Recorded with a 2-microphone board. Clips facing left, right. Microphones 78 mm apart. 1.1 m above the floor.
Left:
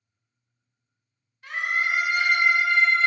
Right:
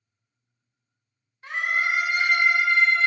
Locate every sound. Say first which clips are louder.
1.4 s a scream: right 1 dB; 25° right (ahead or behind), 1.0 m